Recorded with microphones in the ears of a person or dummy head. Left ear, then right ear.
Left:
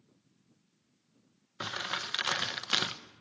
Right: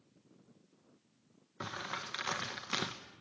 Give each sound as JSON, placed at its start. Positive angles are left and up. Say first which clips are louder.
{"t": 1.6, "sound": "crumpling", "louder": "left 6 dB", "side_deg": 30, "distance_m": 1.2}